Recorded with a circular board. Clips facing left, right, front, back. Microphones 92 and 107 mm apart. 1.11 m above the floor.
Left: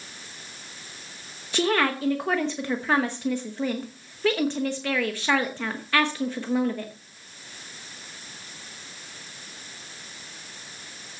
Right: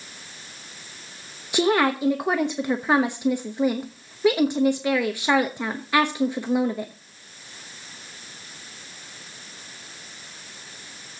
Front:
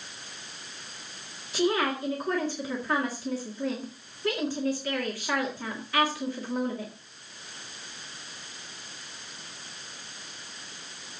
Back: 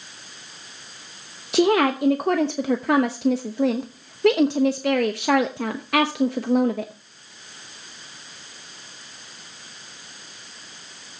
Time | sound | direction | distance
1.5 | a woman speaking | 165° right | 0.9 m